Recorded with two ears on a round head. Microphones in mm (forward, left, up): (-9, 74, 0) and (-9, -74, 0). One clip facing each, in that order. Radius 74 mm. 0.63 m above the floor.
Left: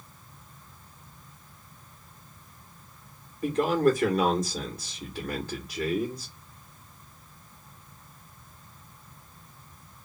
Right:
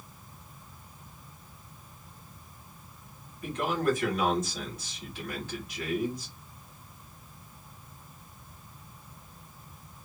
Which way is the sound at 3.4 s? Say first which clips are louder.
Left 6 dB; 35° left (ahead or behind).